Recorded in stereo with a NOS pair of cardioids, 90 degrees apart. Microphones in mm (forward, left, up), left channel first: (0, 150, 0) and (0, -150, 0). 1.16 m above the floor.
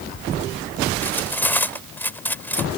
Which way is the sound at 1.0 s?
5° left.